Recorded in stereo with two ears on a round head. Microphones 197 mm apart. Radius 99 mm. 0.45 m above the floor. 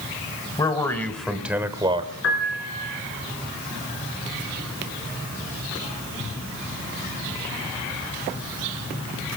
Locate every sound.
0.6 s a man speaking: 20° left (ahead or behind), 1.4 m; by 2.1 s 30° right (ahead or behind), 1.1 m
2.2 s a piano: 65° left (ahead or behind), 5 m